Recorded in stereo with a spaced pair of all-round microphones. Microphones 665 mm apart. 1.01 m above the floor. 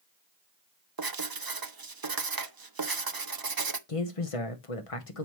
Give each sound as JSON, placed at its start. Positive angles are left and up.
{"t": 1.0, "sound": "writing", "side_deg": -35, "distance_m": 0.7}
{"t": 3.9, "sound": "a man speaking", "side_deg": 55, "distance_m": 1.0}